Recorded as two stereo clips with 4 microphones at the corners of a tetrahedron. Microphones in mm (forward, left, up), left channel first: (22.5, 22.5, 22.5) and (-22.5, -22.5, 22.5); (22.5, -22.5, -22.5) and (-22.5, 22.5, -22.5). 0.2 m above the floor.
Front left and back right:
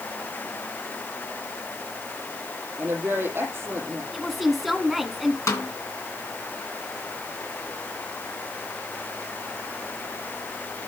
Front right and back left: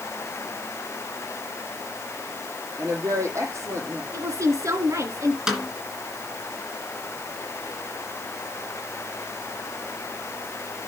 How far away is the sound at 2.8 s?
About 6 m.